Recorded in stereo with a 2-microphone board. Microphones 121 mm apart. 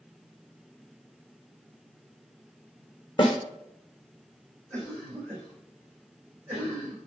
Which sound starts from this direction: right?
A cough, at 4.7 s.